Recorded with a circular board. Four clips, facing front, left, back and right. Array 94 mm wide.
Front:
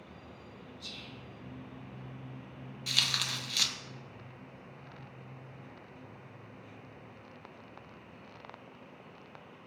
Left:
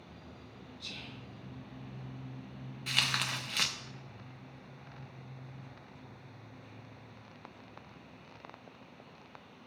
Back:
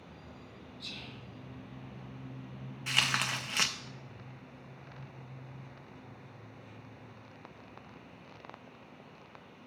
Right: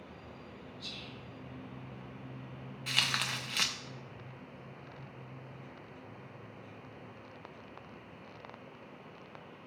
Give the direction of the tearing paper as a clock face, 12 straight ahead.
6 o'clock.